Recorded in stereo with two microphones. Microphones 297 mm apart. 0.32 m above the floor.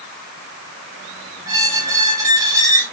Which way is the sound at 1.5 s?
10° right (ahead or behind).